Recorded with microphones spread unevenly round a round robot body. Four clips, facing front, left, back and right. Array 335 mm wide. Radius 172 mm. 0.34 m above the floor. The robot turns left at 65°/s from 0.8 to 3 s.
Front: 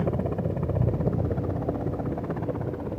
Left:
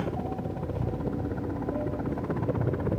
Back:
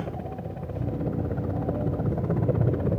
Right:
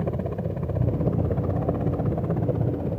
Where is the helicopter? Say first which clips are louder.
Right 3 dB, front 6 dB; 40° right; by 3.0 s 175° left.